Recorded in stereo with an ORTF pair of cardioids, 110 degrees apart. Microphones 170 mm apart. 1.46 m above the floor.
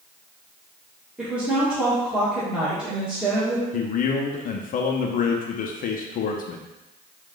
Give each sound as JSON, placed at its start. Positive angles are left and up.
{"t": 1.2, "sound": "a woman speaking", "azimuth_deg": -5, "distance_m": 1.3}
{"t": 3.7, "sound": "a man speaking", "azimuth_deg": 55, "distance_m": 0.7}